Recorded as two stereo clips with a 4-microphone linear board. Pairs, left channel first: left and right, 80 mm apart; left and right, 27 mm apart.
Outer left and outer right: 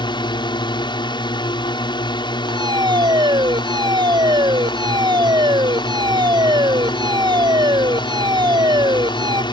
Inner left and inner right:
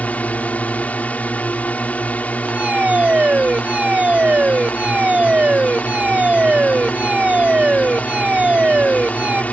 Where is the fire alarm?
60° right (ahead or behind).